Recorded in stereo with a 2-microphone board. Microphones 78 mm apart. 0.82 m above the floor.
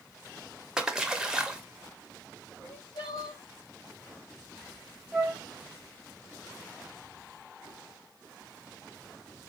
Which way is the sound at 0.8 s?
5° right (ahead or behind).